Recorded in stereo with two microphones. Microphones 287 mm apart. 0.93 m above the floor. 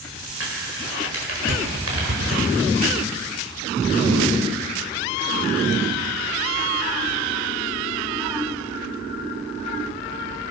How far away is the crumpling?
About 5 m.